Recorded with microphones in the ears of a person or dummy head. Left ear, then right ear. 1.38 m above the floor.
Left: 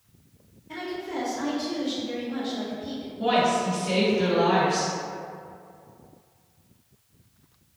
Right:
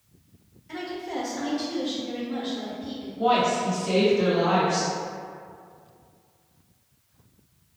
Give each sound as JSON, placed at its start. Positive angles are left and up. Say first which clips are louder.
{"t": 0.7, "sound": "a woman speaking", "louder": "even", "side_deg": -70, "distance_m": 0.8}
{"t": 3.2, "sound": "a woman speaking", "louder": "right 1 dB", "side_deg": -50, "distance_m": 1.1}